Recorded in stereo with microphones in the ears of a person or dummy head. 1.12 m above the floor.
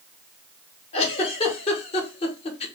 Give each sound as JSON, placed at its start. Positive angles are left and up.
{"t": 0.9, "sound": "a giggle", "side_deg": 35, "distance_m": 1.1}